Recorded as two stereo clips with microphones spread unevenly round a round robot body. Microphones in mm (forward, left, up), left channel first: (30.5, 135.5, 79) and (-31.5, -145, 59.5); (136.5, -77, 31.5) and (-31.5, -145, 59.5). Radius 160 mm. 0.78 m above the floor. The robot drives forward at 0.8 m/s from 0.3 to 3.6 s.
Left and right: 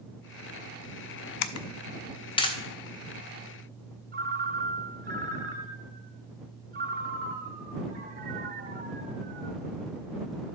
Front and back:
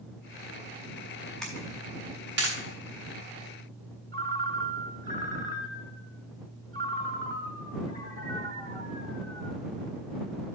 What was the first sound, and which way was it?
A camera shutter, 110° left.